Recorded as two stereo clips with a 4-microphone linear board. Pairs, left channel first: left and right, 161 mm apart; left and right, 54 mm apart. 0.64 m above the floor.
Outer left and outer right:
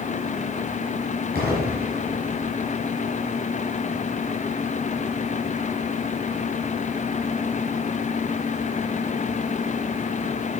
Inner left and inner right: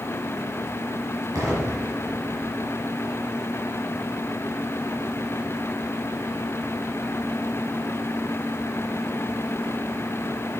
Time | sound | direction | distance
1.4 | an explosion | 85° right | 4 m